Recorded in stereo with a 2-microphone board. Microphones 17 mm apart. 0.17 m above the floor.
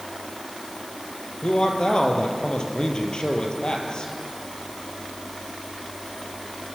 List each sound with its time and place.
1.4 s a man speaking: 50° left (ahead or behind), 4 m